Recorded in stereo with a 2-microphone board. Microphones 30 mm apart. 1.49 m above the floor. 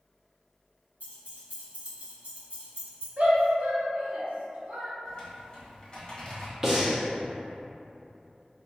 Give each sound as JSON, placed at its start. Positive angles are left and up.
{"t": 1.0, "sound": "keys jangling", "side_deg": -60, "distance_m": 1.5}
{"t": 3.2, "sound": "a shout", "side_deg": -50, "distance_m": 1.3}
{"t": 5.0, "sound": "typing on a keyboard", "side_deg": 20, "distance_m": 1.4}
{"t": 6.6, "sound": "breathing", "side_deg": -20, "distance_m": 0.7}